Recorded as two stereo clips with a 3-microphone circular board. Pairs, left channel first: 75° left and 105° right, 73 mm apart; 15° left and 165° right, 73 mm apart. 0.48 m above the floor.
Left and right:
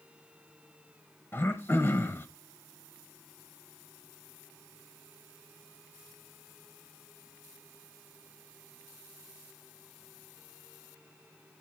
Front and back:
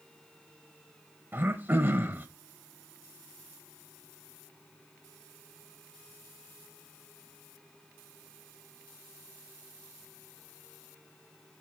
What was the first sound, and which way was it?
Throat clearing, 130° left.